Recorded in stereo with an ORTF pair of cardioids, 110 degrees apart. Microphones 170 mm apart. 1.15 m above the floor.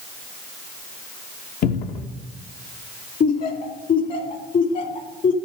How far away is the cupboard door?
About 1.2 m.